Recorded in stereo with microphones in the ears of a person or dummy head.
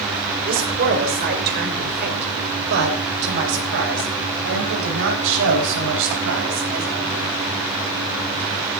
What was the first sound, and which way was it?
A man speaking, 50° right (ahead or behind).